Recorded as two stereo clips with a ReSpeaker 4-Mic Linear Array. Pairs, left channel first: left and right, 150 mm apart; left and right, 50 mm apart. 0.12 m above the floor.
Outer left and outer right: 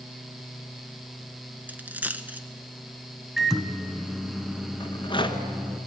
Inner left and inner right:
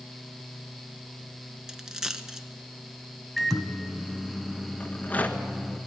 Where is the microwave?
Centre (ahead or behind), 1.0 m.